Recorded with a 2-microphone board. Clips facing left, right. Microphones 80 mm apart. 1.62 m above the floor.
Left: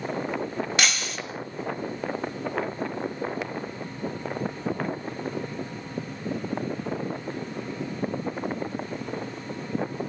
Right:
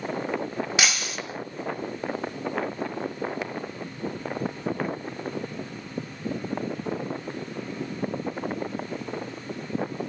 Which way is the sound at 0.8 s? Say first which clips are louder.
Right 1 dB; 5° right (ahead or behind).